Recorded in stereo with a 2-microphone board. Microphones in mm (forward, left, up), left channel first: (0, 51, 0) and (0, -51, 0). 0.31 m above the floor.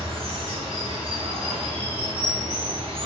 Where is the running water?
70° right (ahead or behind), 1.1 m.